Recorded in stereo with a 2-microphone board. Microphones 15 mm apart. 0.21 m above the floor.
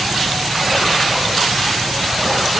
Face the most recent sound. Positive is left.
No sound to turn to.